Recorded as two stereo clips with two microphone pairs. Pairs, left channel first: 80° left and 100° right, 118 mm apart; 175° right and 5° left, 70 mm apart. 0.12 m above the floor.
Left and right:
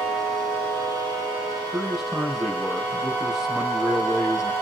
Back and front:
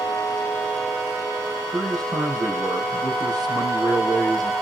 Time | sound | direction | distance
1.7 | a man speaking | 15° right | 3.5 m